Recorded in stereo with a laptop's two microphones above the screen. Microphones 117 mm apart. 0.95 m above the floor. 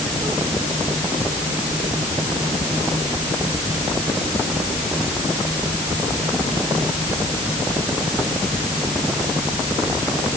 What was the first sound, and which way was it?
Only background noise.